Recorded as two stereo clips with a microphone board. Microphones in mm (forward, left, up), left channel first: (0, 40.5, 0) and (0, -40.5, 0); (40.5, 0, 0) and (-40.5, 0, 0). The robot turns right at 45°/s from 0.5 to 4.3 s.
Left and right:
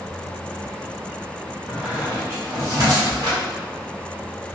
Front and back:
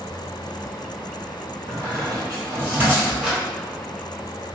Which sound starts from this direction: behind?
A squeak, at 1.7 s.